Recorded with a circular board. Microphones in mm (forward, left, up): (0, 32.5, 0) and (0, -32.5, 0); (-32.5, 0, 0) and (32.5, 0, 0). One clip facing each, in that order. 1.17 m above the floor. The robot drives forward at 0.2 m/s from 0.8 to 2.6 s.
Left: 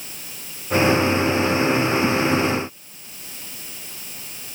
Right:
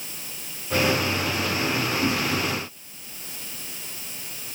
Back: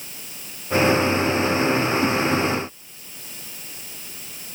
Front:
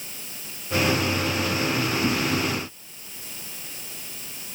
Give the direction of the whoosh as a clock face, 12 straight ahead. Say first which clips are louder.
Left 4 dB, back 3 dB; 7 o'clock.